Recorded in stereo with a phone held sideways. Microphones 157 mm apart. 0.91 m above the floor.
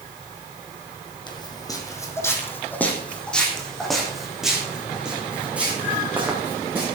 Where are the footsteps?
30° left (ahead or behind), 2.5 m; by 6.8 s 15° right (ahead or behind), 5.5 m.